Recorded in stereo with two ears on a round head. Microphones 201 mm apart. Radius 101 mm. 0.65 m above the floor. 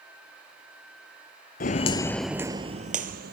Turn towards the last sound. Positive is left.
turn(degrees=-45)  # may be behind; listen again after turning